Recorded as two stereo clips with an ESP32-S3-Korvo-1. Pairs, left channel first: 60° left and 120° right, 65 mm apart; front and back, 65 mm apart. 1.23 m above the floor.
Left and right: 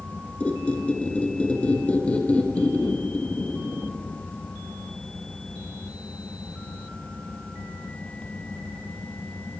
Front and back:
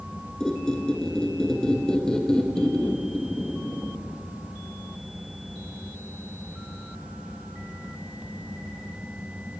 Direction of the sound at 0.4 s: 55° left.